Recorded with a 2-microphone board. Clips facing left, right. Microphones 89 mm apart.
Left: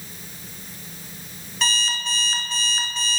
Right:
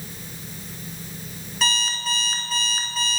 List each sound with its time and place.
1.6 s an alarm clock: 5° right (ahead or behind), 1.6 m